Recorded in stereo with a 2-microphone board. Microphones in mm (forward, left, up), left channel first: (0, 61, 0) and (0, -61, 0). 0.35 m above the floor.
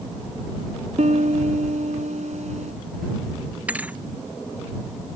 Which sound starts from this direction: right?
A piano, at 1.0 s.